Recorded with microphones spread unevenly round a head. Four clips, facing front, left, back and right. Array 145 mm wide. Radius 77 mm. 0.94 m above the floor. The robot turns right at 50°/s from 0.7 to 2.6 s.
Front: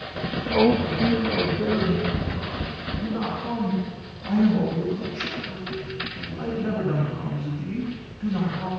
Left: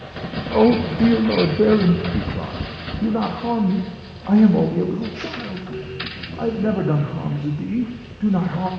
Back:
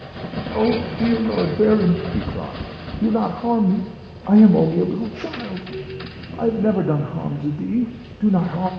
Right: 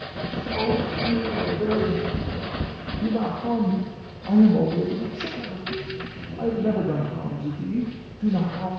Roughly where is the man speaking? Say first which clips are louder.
Left 9 dB, even; left.